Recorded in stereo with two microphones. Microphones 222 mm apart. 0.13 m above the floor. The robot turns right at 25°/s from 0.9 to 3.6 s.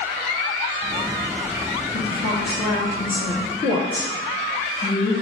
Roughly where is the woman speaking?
Left.